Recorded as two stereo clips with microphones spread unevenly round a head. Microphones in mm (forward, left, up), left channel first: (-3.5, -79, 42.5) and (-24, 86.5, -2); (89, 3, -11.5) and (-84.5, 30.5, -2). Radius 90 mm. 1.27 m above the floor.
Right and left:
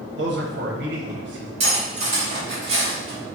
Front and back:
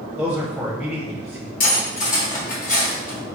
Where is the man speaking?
85° left, 1.0 m.